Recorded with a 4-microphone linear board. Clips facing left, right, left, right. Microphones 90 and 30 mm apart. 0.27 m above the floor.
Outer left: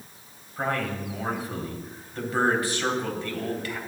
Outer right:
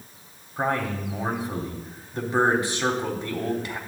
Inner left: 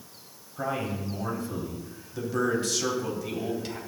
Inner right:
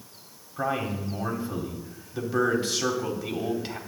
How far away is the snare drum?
I don't hear a snare drum.